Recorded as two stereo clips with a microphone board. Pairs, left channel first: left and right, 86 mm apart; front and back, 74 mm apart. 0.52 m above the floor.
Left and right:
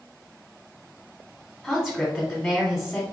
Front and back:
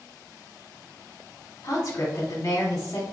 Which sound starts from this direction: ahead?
A woman speaking, at 1.6 s.